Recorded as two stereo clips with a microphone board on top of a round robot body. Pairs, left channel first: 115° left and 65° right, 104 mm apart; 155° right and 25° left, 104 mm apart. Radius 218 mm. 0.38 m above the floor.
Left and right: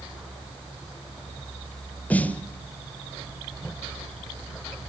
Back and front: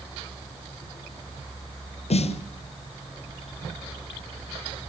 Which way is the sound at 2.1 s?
170° right.